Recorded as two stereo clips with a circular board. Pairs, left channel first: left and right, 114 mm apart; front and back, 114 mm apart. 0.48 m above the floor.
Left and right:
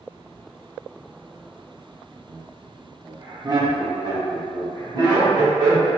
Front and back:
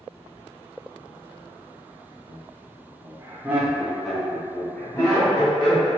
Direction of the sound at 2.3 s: 160° right.